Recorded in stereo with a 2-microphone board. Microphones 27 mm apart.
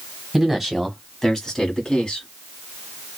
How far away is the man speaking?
About 1.2 m.